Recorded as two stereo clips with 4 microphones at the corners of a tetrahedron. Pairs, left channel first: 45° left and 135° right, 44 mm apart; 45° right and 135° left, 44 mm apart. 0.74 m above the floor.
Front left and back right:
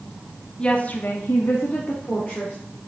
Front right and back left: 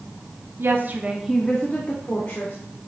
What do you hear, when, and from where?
0.6 s a woman speaking: 110° left, 1.2 m; by 2.5 s 10° right, 2.5 m